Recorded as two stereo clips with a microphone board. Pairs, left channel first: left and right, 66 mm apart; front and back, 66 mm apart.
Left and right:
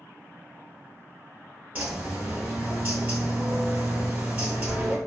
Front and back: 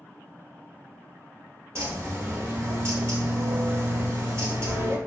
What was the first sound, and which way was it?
A bird, 155° right.